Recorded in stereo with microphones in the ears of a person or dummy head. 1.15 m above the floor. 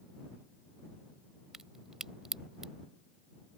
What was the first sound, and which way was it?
A crack, centre (ahead or behind).